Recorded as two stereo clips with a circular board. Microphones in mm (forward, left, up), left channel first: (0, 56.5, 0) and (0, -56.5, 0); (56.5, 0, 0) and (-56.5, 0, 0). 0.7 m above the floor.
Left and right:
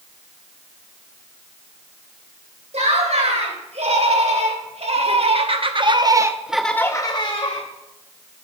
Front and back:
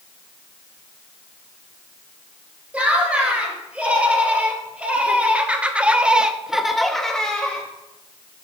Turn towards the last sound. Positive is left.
turn(degrees=80)